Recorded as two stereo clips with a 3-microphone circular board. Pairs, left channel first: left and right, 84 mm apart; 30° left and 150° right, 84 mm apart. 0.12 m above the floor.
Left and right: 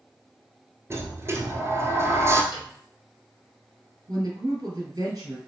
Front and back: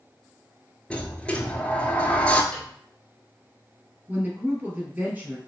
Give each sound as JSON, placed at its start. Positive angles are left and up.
{"t": 0.9, "sound": "a sliding door", "azimuth_deg": -40, "distance_m": 0.8}
{"t": 2.5, "sound": "a piano", "azimuth_deg": 105, "distance_m": 1.5}
{"t": 4.1, "sound": "a woman speaking", "azimuth_deg": -90, "distance_m": 2.0}